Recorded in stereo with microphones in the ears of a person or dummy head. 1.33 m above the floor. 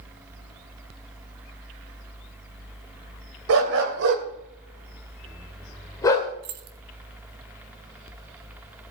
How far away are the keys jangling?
About 0.7 m.